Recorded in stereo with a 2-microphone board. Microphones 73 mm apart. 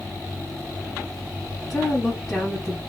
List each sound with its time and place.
1.7 s a woman speaking: centre (ahead or behind), 1.4 m